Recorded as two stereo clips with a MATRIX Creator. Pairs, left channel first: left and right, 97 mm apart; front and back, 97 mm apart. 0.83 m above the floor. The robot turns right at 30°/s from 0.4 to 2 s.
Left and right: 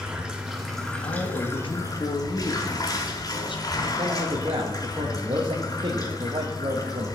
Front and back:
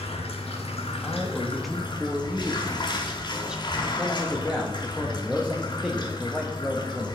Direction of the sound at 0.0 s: 10° right.